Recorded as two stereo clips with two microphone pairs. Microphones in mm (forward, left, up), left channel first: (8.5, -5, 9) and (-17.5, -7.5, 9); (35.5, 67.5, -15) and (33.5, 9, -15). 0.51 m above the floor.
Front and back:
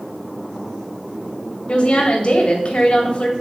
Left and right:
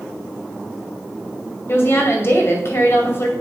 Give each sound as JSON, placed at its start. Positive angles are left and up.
{"t": 1.7, "sound": "a woman speaking", "azimuth_deg": 45, "distance_m": 2.5}